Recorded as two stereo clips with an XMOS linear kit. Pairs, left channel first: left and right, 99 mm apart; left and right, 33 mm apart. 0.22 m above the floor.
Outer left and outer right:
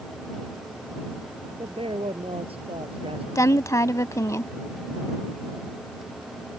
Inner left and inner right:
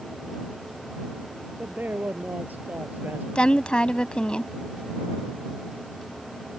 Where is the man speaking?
75° right (ahead or behind).